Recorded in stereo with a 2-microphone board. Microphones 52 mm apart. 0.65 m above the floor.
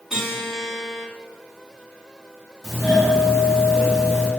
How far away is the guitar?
About 1.8 m.